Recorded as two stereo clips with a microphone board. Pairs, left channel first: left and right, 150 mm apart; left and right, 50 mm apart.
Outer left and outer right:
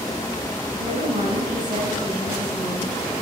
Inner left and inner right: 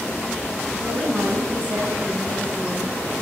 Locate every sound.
0.8 s a woman speaking: 30° right (ahead or behind), 5 m